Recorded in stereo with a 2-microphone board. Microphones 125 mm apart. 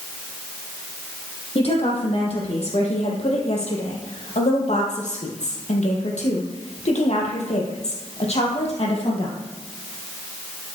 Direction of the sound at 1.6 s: 55° left (ahead or behind).